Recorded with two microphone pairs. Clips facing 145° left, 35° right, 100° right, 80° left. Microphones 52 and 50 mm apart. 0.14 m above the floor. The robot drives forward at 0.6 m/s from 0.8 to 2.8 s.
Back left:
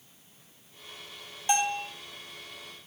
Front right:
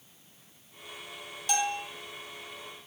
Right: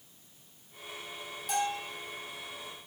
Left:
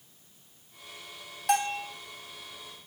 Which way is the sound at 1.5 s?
85° left.